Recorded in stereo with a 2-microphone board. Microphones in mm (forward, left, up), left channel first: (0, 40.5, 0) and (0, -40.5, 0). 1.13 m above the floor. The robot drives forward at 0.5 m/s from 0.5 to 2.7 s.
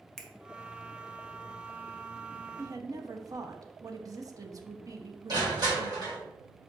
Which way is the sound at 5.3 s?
55° right (ahead or behind).